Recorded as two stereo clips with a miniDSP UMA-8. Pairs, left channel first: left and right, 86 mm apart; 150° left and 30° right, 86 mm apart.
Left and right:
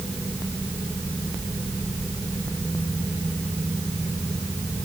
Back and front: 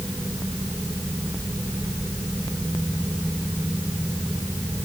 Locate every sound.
Only background noise.